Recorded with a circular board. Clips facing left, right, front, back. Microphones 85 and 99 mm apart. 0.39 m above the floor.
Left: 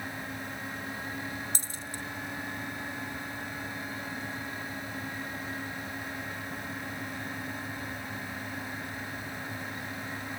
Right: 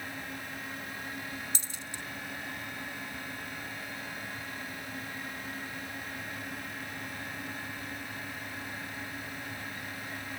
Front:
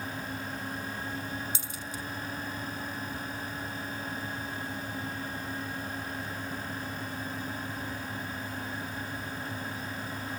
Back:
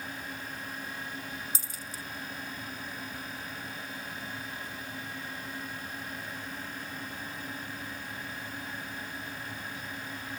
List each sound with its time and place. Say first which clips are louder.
1.6 s a dropped coin: left 3 dB, front 3 dB; 130° left